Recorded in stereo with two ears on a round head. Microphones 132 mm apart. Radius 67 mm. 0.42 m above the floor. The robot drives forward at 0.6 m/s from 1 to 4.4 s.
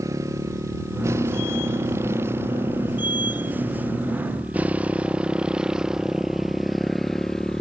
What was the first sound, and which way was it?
A motorcycle, 20° right (ahead or behind).